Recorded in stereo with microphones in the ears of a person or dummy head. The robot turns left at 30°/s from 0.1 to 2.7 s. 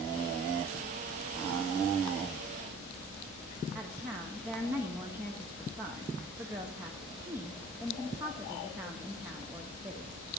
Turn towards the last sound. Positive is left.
turn(degrees=-10)  # may be behind; listen again after turning